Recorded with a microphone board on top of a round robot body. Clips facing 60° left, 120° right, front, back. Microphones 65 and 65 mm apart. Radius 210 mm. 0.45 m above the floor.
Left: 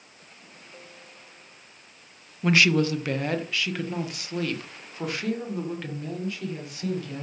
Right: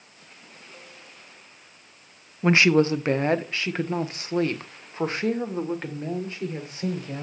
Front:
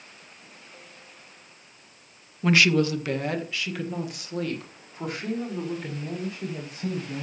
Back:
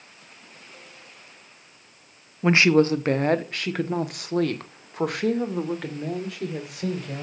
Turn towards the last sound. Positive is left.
turn(degrees=-175)